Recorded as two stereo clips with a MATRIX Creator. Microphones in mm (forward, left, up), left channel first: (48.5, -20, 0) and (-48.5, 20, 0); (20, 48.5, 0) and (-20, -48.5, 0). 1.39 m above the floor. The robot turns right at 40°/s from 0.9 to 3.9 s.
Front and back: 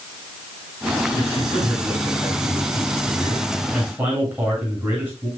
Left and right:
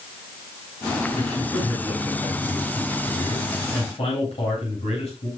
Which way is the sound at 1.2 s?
25° right.